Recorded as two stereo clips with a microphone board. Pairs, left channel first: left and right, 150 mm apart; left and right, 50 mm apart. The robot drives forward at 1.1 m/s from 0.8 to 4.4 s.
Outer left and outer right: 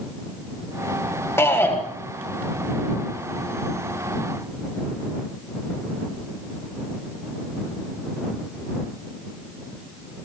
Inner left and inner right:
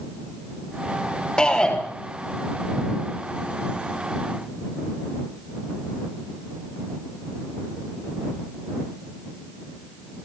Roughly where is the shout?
Centre.